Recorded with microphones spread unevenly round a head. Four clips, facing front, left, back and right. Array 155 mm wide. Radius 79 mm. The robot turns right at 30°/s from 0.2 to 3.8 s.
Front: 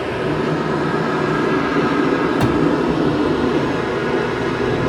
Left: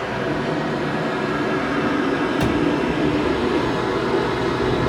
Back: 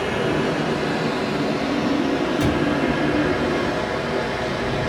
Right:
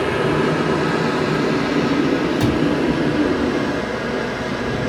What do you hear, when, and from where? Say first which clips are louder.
0.0 s running water: right 5 dB, front 2 dB; 60° right, 5.5 m; by 4.9 s 45° left, 5.5 m
2.4 s a cupboard door: right 2 dB, front 4 dB; 5° left, 4 m; by 2.6 s 10° left, 4 m